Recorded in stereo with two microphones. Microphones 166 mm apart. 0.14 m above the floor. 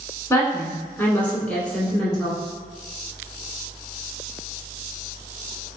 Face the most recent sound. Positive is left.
turn(degrees=0)  # may be behind; listen again after turning